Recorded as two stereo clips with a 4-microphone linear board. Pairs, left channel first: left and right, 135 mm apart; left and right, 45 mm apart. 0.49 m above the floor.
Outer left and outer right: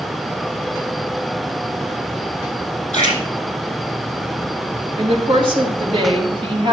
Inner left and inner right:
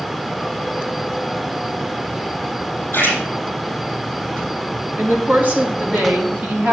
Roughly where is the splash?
Left.